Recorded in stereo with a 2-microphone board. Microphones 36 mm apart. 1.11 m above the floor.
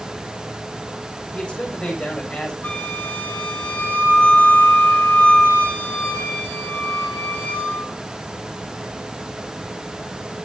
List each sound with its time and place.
1.3 s a man speaking: 25° left (ahead or behind), 6 m
2.6 s a flute: 60° left (ahead or behind), 6.5 m